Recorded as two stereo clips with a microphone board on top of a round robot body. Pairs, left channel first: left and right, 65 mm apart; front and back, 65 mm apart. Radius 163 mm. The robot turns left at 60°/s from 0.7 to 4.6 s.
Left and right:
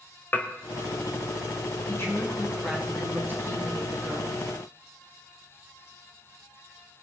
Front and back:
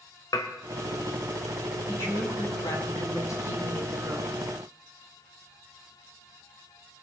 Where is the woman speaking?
50° left, 5 m; by 4.4 s 100° right, 5 m.